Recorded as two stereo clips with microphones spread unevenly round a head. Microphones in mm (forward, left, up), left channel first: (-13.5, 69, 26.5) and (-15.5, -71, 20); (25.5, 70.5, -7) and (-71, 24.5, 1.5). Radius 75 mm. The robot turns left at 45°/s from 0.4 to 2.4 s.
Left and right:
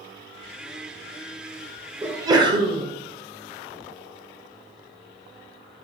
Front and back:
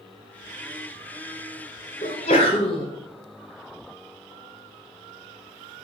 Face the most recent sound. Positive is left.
turn(degrees=-30)